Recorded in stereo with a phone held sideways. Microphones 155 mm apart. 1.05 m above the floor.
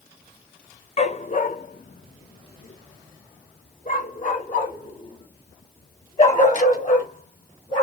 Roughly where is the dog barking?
Left.